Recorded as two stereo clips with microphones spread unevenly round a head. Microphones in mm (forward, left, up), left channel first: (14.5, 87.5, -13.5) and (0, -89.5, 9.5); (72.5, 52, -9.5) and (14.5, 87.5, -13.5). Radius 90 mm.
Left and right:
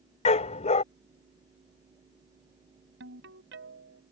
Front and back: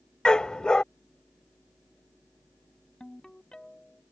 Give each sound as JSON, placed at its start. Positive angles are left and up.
{"t": 0.2, "sound": "a dog barking", "azimuth_deg": 40}
{"t": 3.0, "sound": "a ringtone", "azimuth_deg": -115}